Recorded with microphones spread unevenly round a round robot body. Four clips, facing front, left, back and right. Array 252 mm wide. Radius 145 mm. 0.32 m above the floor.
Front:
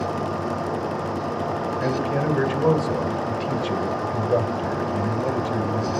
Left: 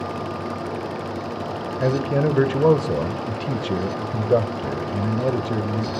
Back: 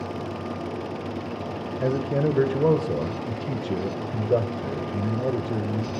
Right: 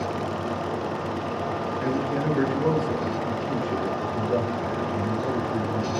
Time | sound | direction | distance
1.8 | a man speaking | 85° left | 1.6 m